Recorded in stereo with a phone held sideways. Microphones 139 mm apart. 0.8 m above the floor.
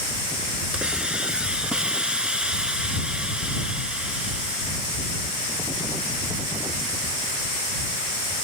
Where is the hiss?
5° right (ahead or behind).